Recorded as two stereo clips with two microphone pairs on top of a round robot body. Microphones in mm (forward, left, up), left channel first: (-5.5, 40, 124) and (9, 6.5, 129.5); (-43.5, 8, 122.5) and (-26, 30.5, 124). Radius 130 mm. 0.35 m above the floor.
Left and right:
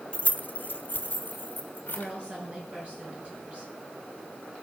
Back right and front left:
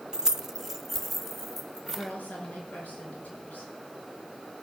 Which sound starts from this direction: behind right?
A woman speaking, at 1.9 s.